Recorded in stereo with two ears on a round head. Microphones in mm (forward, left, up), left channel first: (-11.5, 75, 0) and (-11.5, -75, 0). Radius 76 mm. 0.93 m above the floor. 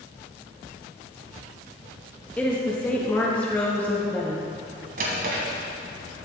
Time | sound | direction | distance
2.4 | a woman speaking | 10° left (ahead or behind) | 1.2 m
5.0 | a drawer | 55° right (ahead or behind) | 1.7 m